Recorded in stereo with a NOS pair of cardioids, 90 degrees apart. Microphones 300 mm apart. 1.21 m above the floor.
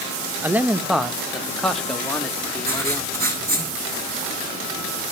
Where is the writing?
30° right, 6 m.